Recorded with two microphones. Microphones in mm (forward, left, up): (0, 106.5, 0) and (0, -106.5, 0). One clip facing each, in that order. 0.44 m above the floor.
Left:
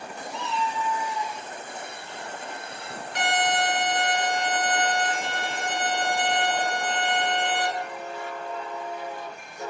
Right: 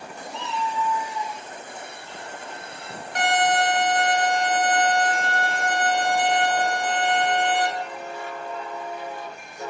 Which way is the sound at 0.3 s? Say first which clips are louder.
Right 1 dB; 35° right (ahead or behind).